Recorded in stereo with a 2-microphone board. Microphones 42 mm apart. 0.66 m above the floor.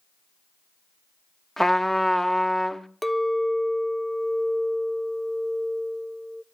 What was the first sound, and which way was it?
A trumpet, 10° left (ahead or behind).